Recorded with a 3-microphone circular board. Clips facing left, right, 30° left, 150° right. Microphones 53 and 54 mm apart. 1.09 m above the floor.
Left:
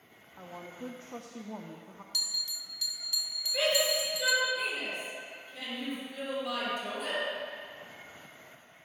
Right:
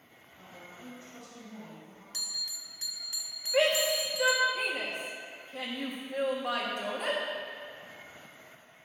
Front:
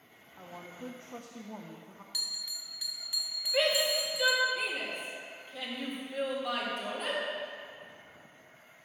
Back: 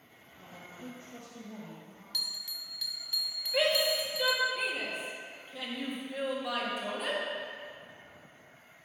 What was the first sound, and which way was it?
A woman speaking, 80° left.